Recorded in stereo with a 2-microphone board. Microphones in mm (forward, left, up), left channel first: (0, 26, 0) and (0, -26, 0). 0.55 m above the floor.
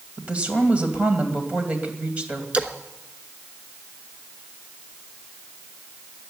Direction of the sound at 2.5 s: 20° right (ahead or behind).